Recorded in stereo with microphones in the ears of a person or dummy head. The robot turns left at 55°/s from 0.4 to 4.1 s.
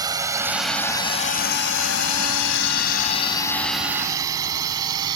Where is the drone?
20° right (ahead or behind); by 5.2 s 25° right (ahead or behind).